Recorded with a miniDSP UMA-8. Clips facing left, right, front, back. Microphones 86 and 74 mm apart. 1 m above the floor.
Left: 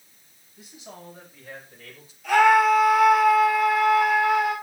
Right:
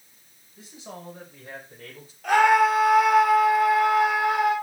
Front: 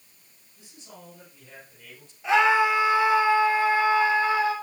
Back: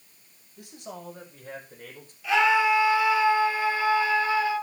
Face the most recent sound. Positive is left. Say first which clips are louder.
# left 1 dB, front 1 dB
turn(degrees=-60)